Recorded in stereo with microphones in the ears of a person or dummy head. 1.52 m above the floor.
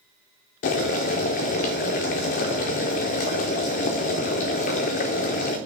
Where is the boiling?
30° left (ahead or behind), 0.5 m.